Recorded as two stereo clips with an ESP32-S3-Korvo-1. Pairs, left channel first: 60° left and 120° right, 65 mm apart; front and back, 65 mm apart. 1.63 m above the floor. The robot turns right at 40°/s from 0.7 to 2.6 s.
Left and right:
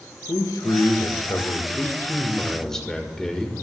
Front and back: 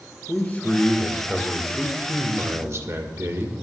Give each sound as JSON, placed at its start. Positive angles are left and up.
{"t": 0.3, "sound": "a man speaking", "azimuth_deg": 65, "distance_m": 1.5}